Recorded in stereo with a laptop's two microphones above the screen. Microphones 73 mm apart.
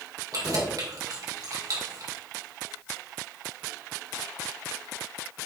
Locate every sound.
0.3 s keys jangling: 55° right (ahead or behind), 2 m